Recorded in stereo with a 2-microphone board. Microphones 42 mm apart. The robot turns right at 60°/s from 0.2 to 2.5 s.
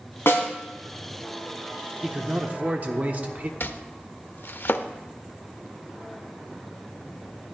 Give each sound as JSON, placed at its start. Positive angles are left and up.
{"t": 0.3, "sound": "a snare drum", "side_deg": 65, "distance_m": 2.5}
{"t": 2.0, "sound": "a man speaking", "side_deg": -20, "distance_m": 1.0}
{"t": 3.6, "sound": "chopping", "side_deg": 55, "distance_m": 0.6}